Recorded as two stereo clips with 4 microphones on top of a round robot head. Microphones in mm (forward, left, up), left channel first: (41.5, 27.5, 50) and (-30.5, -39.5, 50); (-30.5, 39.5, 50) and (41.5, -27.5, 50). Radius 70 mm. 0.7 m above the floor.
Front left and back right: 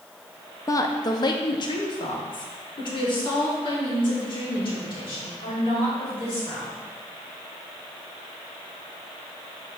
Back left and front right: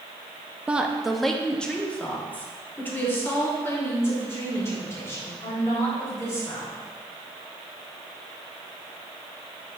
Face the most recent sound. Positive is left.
turn(degrees=80)